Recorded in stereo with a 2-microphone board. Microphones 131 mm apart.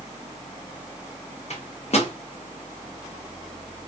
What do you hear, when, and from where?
1.5 s a microwave: 55° left (ahead or behind), 0.9 m